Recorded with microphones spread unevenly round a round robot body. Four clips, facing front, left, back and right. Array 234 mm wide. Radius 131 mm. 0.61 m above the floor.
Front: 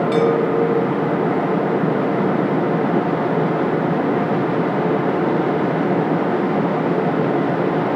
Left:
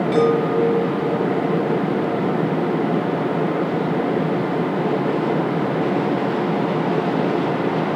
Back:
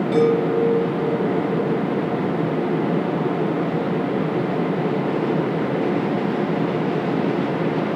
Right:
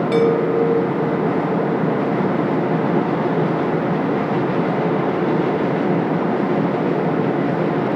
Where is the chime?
55° right, 9 m.